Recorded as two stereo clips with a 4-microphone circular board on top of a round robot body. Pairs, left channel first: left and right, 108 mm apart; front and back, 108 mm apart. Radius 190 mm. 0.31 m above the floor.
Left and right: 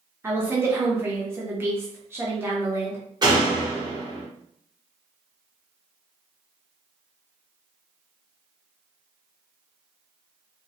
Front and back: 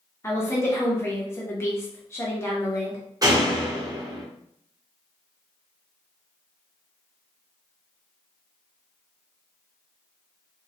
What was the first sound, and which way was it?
A woman speaking, 45° right.